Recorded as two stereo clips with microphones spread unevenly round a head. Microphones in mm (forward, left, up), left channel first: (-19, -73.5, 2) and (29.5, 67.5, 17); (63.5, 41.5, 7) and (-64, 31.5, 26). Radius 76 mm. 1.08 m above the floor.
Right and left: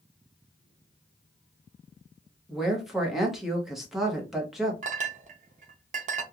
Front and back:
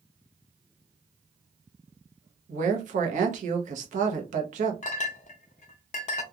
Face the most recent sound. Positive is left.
turn(degrees=35)